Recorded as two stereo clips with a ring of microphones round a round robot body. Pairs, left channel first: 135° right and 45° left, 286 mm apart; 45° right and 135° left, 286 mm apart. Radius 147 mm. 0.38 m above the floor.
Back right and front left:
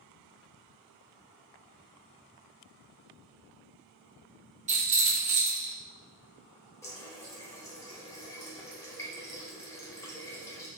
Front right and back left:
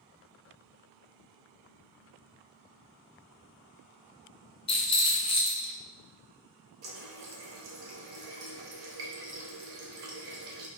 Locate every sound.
4.7 s a rattle: 10° left, 1.0 m
6.8 s a running tap: 145° left, 0.9 m